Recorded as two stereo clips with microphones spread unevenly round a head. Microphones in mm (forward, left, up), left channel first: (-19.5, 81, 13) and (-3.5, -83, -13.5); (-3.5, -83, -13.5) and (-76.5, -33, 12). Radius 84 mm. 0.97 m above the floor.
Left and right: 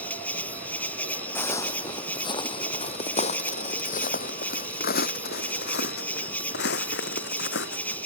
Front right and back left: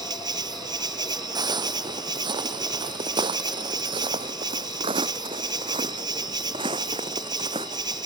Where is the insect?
175° left.